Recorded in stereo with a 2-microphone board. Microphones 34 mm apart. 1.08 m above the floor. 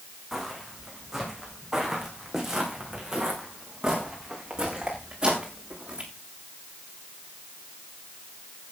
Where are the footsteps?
Centre (ahead or behind), 5 m; by 6.1 s 20° right (ahead or behind), 7 m.